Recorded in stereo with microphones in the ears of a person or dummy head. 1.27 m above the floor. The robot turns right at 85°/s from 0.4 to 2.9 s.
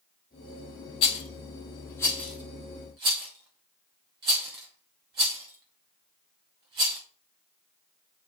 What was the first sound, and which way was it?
A rattle, 30° left (ahead or behind).